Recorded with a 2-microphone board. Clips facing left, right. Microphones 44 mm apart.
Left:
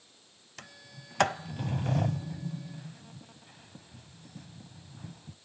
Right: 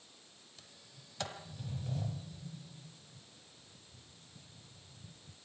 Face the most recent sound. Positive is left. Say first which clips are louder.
# left 13 dB
turn(degrees=85)